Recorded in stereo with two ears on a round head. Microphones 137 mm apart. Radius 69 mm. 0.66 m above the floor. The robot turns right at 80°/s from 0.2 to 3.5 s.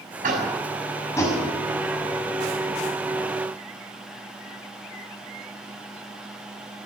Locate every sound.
0.2 s tapping: 55° right (ahead or behind), 6 m; by 1.4 s 35° left (ahead or behind), 6 m